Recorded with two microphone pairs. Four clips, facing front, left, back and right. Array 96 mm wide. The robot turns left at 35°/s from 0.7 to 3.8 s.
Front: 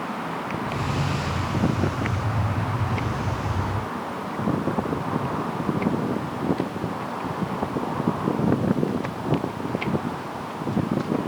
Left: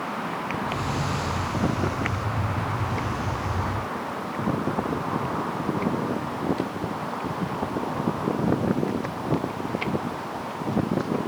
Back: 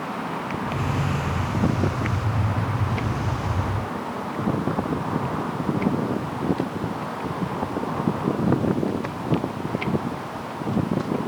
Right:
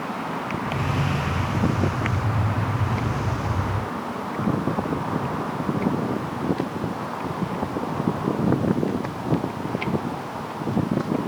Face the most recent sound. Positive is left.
No sound to turn to.